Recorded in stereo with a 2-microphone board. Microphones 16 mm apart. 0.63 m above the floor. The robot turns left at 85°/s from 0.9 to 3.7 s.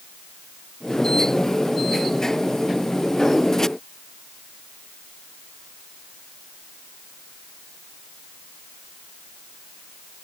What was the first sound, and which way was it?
Only background noise.